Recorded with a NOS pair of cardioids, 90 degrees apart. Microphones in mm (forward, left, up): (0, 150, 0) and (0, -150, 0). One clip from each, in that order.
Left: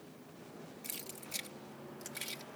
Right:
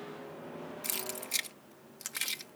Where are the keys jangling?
55° right.